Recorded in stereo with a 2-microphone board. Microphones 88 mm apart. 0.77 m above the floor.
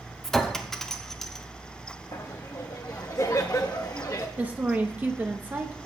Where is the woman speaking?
20° right (ahead or behind), 0.8 m.